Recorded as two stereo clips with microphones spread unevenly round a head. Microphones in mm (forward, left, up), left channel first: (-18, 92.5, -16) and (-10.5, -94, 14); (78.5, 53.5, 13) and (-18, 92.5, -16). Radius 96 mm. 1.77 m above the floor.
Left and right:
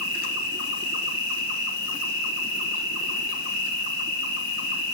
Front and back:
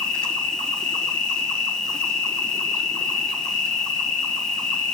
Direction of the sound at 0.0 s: 70° left.